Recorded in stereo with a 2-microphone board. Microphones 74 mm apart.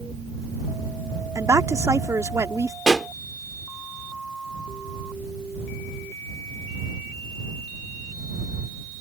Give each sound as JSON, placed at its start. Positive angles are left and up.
{"t": 1.4, "sound": "a woman speaking", "side_deg": -40}
{"t": 2.9, "sound": "a pop", "side_deg": 10}